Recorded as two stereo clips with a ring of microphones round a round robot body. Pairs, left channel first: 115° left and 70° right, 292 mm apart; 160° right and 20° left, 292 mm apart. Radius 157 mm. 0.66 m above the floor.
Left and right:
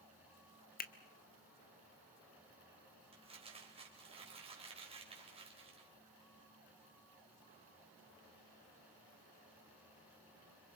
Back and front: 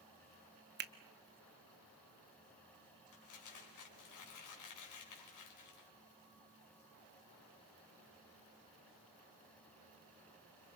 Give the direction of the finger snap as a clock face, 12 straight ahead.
10 o'clock.